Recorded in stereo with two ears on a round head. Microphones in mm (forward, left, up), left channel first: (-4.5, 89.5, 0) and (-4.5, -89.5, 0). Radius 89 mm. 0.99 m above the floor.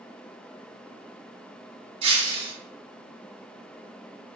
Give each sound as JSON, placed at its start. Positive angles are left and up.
{"t": 2.0, "sound": "breaking glass", "side_deg": -30, "distance_m": 3.0}